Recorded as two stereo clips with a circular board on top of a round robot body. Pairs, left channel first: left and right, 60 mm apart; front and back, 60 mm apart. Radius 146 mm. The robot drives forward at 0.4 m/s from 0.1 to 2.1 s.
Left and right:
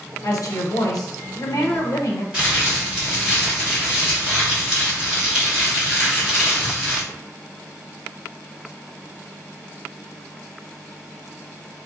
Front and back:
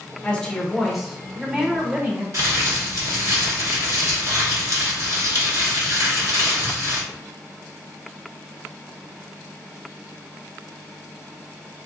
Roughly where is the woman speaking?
Left.